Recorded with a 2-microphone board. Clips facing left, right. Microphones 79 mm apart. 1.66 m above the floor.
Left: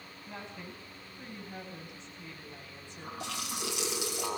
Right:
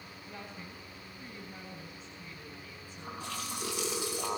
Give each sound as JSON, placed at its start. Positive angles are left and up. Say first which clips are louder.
{"t": 0.3, "sound": "a woman speaking", "louder": "left 2 dB", "side_deg": 80, "distance_m": 9.5}
{"t": 3.2, "sound": "a running tap", "louder": "left 1 dB", "side_deg": 80, "distance_m": 6.0}